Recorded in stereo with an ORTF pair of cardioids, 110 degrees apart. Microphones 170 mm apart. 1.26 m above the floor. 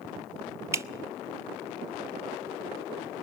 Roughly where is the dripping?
Ahead.